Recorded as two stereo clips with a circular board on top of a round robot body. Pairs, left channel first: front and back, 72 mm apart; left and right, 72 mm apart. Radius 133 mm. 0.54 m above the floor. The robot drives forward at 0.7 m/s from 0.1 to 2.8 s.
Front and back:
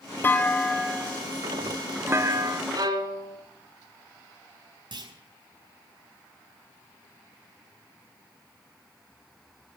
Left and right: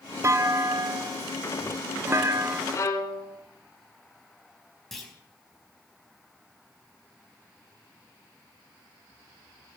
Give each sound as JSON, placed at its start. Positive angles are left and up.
{"t": 0.2, "sound": "a clunk", "azimuth_deg": -55, "distance_m": 1.3}
{"t": 2.7, "sound": "a violin", "azimuth_deg": 140, "distance_m": 1.5}
{"t": 4.9, "sound": "a clunk", "azimuth_deg": 175, "distance_m": 4.5}